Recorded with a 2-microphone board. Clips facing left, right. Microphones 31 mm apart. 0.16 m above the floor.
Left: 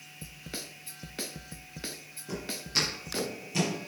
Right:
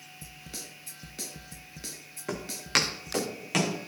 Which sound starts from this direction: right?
Footsteps, at 2.3 s.